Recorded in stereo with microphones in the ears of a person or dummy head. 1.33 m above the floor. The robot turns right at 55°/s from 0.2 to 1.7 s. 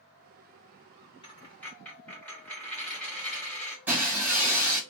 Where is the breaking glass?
10° right (ahead or behind), 1.3 m.